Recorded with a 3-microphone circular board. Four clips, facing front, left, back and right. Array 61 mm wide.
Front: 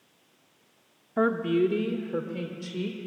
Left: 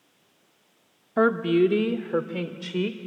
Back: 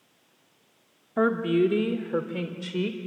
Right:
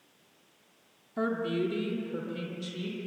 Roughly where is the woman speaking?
Left.